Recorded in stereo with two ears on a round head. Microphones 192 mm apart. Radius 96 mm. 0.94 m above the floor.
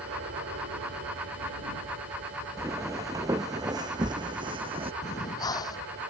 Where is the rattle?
No rattle in this recording.